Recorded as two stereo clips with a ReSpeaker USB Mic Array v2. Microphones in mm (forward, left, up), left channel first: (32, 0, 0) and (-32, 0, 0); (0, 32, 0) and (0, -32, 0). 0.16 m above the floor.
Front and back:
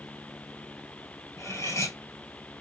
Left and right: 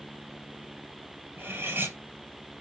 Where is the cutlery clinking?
35° right, 2.5 m.